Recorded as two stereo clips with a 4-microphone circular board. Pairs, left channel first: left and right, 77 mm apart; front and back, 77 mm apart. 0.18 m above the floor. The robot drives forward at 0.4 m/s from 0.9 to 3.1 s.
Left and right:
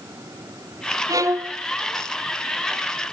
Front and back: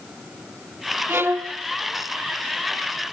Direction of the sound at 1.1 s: 120° right.